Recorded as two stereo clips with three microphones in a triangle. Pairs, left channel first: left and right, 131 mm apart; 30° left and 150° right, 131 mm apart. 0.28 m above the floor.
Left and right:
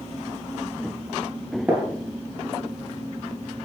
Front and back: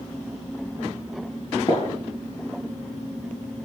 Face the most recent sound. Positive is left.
turn(degrees=-10)